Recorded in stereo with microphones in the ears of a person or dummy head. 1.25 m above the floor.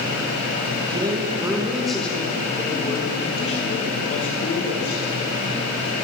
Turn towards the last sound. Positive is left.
turn(degrees=55)  # may be behind; listen again after turning